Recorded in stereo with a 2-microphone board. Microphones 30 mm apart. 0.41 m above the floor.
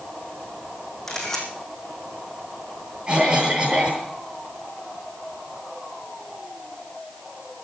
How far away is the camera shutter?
About 4.5 m.